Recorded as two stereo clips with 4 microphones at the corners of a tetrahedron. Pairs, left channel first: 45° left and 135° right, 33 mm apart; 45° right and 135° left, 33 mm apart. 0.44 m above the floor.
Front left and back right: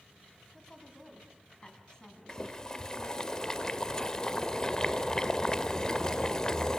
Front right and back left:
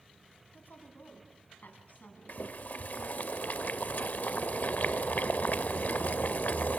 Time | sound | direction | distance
0.5 | a woman speaking | 30° right | 3.5 m
2.3 | boiling | 25° right | 0.6 m